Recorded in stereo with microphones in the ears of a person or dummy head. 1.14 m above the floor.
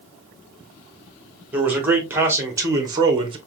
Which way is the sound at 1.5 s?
10° right (ahead or behind).